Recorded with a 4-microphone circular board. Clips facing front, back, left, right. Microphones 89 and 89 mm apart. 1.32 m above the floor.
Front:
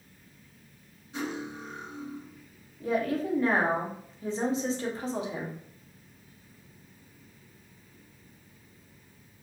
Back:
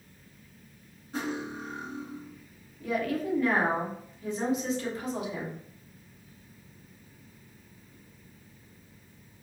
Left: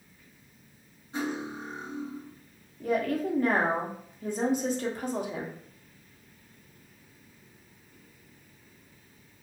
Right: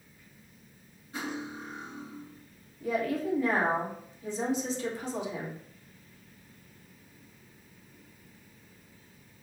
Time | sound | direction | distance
1.1 | cutlery clinking | 150° left | 0.8 m
2.8 | a woman speaking | 55° left | 0.6 m